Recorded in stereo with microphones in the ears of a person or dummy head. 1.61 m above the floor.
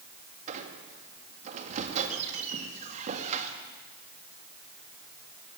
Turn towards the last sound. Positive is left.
turn(degrees=-35)  # may be behind; listen again after turning